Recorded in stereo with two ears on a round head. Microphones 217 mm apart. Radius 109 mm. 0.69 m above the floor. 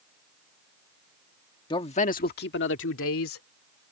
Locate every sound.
1.7 s a man speaking: 20° left (ahead or behind); by 3.4 s 60° left (ahead or behind)